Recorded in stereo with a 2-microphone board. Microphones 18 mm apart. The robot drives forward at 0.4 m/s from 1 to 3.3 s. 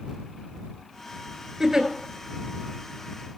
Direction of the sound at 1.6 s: 25° right (ahead or behind).